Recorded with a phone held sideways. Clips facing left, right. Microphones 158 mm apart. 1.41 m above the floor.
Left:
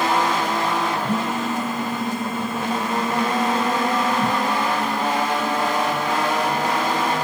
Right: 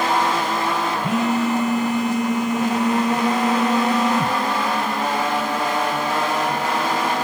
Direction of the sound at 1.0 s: 85° right.